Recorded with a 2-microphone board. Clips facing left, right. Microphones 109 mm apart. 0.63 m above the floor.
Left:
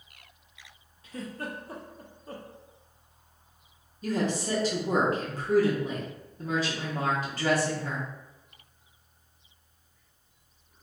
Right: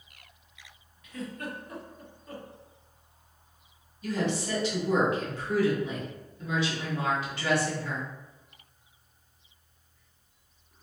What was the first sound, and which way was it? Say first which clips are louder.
A giggle: even; 30° left (ahead or behind).